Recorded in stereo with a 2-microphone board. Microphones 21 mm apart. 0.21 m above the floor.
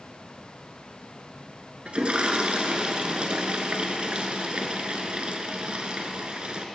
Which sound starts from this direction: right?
A toilet flushing, at 1.9 s.